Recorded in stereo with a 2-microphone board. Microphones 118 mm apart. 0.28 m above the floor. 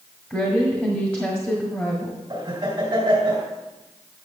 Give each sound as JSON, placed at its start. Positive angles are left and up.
{"t": 0.3, "sound": "a woman speaking", "side_deg": 15, "distance_m": 1.5}
{"t": 2.3, "sound": "laughter", "side_deg": -35, "distance_m": 2.0}